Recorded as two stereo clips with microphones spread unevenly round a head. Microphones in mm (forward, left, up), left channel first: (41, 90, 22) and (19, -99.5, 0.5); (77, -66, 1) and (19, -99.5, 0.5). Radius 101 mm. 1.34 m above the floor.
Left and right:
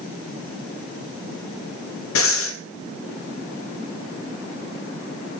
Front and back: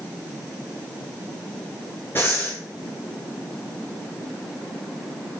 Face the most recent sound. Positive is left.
turn(degrees=110)